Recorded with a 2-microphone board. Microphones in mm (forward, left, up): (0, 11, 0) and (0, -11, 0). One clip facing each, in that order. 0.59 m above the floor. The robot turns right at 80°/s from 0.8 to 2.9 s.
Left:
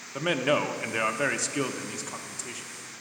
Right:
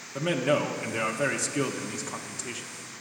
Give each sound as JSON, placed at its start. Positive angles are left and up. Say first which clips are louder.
{"t": 0.1, "sound": "a man speaking", "louder": "even", "side_deg": 25, "distance_m": 0.6}